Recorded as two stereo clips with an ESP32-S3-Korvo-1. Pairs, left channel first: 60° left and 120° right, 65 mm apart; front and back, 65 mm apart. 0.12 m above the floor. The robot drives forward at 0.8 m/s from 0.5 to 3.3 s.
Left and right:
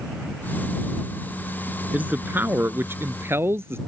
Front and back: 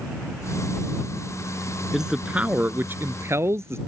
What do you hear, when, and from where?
1.9 s a man speaking: 105° right; by 3.8 s 155° right